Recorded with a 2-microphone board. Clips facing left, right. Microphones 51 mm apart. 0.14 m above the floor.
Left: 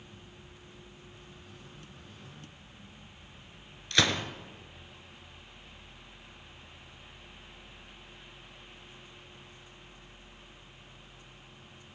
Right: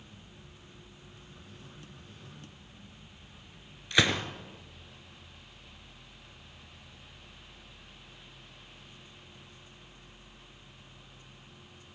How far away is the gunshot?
About 1.8 m.